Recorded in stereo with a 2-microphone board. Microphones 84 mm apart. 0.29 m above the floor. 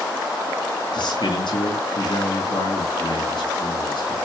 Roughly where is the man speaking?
Left.